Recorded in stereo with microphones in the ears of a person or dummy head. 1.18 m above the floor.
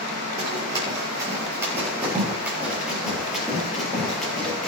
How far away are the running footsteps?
About 4 m.